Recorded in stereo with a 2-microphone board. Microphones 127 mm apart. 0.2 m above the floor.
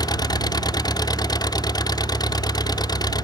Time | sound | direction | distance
0.0 | an engine running | 30° left (ahead or behind) | ?